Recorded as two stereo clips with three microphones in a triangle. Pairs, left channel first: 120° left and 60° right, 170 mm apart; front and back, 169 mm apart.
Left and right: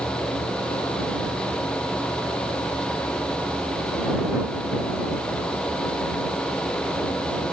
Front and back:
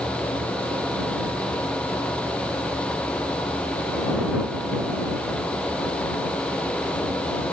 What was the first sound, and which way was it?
Only background noise.